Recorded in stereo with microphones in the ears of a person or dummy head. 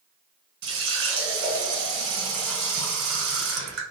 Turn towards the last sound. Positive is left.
turn(degrees=-60)  # may be behind; listen again after turning